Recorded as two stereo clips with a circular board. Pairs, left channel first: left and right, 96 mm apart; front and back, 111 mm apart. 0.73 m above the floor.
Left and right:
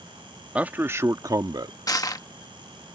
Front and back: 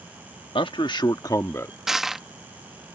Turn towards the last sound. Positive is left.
turn(degrees=95)